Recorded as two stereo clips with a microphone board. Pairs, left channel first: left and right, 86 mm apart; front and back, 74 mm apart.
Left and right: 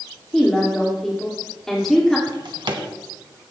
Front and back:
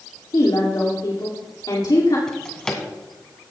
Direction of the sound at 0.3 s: 5° left.